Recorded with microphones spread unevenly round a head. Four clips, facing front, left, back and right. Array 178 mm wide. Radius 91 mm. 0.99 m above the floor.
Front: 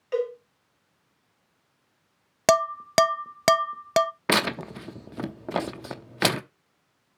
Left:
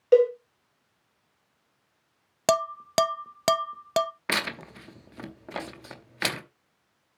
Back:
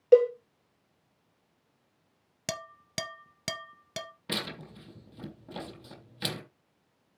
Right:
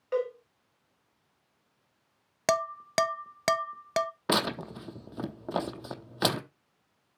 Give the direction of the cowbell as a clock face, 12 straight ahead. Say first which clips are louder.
Left 12 dB, back 8 dB; 7 o'clock.